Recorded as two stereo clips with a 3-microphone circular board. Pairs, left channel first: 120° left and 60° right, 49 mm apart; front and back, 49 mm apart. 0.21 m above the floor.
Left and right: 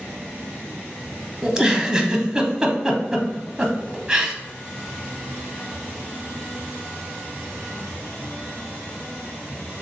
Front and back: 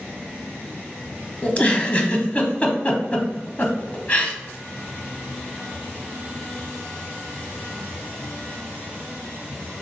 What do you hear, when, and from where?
1.4 s a giggle: straight ahead, 0.8 m